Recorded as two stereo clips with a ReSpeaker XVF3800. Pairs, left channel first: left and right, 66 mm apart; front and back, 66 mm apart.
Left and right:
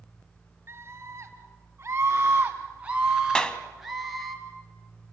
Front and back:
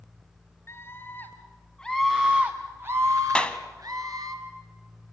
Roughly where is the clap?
Ahead left.